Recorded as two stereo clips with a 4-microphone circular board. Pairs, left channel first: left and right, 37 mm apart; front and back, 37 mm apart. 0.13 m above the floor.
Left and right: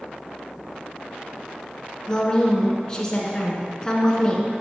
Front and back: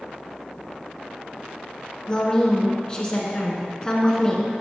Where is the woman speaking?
40° left, 1.1 m.